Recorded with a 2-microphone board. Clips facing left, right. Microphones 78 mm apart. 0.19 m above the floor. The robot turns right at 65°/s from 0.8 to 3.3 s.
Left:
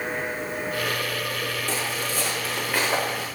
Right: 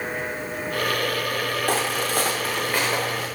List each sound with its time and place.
1.7 s footsteps: 55° right (ahead or behind), 0.6 m; by 3.2 s 50° left (ahead or behind), 1.1 m